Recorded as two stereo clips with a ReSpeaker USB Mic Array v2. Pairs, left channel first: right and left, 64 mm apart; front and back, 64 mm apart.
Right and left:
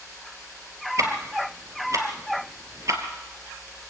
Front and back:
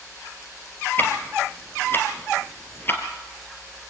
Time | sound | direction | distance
1.0 | ticking | 55° left | 2 m